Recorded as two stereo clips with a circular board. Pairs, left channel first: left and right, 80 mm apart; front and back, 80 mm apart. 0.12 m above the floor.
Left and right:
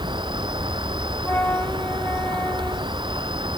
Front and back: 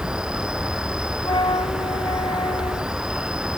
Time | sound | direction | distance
0.0 | an insect | 100° right | ?
1.2 | a flute | 25° left | ?